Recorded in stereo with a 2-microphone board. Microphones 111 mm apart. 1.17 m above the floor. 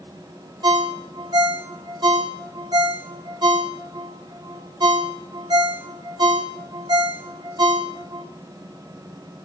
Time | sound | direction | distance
0.6 | a ringtone | 45° right (ahead or behind) | 1.6 m